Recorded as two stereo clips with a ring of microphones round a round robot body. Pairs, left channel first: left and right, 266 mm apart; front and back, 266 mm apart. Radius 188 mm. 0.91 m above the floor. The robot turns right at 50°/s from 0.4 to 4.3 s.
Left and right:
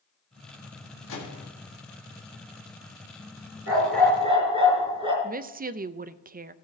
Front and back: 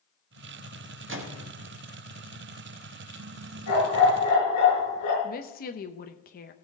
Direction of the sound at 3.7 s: 50° right.